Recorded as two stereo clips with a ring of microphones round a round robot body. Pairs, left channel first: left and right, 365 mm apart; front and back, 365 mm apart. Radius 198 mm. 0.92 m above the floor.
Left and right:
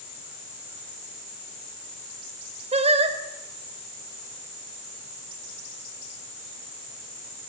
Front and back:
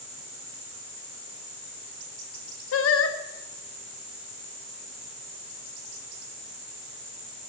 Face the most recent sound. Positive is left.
turn(degrees=-25)